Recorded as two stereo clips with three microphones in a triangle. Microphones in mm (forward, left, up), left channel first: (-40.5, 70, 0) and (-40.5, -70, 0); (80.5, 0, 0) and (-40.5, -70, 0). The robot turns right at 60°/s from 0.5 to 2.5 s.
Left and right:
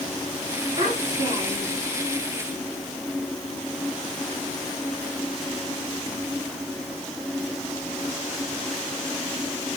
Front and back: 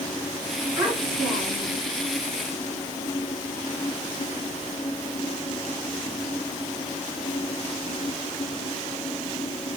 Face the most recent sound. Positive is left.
turn(degrees=15)